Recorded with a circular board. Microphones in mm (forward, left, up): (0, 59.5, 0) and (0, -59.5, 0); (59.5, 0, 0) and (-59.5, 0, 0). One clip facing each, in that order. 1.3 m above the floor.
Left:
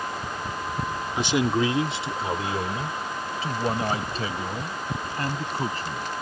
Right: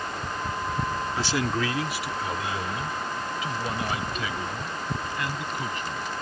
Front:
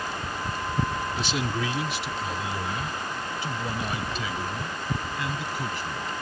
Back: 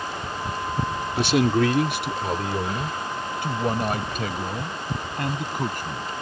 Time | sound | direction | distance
1.2 | a man speaking | 160° left | ?